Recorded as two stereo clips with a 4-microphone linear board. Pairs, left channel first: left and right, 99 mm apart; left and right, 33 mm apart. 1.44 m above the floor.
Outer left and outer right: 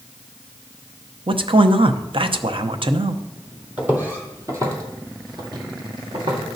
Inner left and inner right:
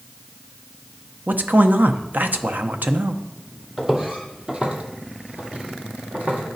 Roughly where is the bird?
I don't hear a bird.